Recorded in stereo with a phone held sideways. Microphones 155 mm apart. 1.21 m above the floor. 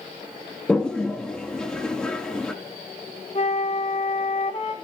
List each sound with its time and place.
0.7 s a toilet flushing: 5° left (ahead or behind), 2.5 m
3.4 s a flute: 45° left (ahead or behind), 4 m